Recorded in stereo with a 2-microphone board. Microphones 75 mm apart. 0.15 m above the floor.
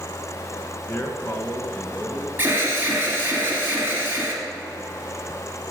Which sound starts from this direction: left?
A man speaking, at 0.9 s.